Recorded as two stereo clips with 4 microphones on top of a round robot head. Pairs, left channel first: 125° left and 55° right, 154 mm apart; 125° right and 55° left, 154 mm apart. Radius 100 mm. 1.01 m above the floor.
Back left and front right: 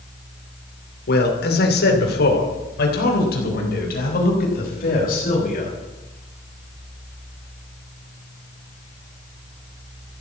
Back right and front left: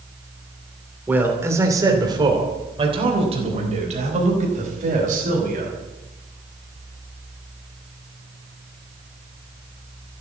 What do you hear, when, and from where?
1.1 s a man speaking: 135° left, 2.5 m; by 5.8 s 90° left, 5.5 m